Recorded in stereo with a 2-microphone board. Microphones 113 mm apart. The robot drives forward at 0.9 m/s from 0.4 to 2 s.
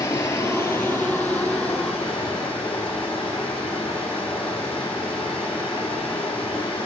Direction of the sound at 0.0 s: 25° left (ahead or behind).